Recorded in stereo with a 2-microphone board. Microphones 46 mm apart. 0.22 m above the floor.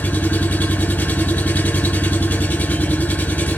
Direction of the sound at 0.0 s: 45° left (ahead or behind).